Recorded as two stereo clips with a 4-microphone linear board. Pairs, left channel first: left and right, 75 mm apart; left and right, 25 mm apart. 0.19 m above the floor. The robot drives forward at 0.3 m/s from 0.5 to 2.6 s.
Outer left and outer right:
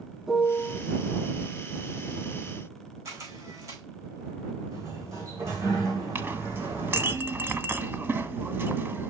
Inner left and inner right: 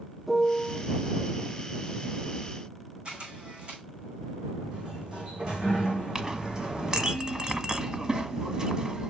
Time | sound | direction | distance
0.3 | a piano | 5° right (ahead or behind) | 0.7 m
3.0 | a camera shutter | 45° right (ahead or behind) | 4.5 m
4.7 | a sliding door | 40° right (ahead or behind) | 3 m
6.2 | a clink | 25° right (ahead or behind) | 0.8 m